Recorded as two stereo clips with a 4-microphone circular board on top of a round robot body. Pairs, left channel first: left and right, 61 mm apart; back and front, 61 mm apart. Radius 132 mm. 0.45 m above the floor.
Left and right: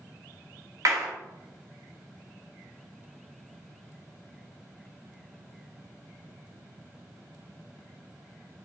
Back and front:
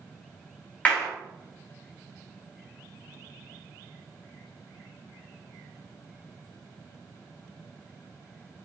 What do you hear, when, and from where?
0.8 s a clap: 115° right, 4 m